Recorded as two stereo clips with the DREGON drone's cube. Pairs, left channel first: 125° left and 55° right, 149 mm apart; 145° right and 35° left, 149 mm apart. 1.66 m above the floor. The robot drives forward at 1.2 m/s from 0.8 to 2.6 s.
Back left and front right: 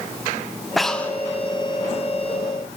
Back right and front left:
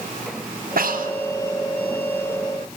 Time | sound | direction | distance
0.8 | breathing | 35° left | 1.2 m